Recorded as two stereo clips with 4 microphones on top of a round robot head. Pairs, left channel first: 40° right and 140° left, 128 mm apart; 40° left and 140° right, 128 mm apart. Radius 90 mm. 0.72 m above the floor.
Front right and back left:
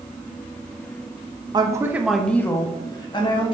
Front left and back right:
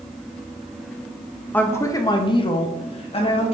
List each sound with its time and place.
1.5 s a woman speaking: 110° left, 1.0 m; by 3.5 s straight ahead, 1.8 m